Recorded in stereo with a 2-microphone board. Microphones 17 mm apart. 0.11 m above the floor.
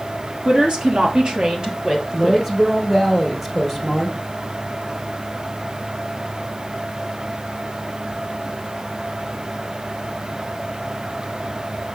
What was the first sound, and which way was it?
A woman speaking, 60° right (ahead or behind).